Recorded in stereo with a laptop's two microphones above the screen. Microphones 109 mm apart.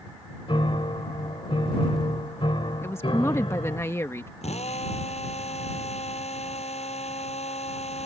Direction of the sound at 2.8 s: 25° left (ahead or behind).